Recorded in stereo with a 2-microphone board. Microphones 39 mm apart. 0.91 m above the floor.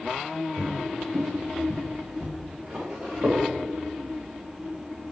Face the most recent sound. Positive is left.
turn(degrees=-70)  # may be behind; listen again after turning